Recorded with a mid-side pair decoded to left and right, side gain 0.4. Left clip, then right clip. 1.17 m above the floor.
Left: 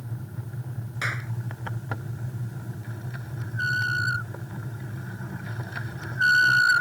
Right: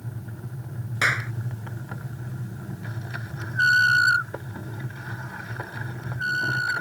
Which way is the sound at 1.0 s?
50° right.